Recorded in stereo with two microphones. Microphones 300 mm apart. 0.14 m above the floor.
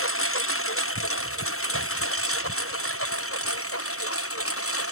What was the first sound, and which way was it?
A lawn mower, 45° left (ahead or behind).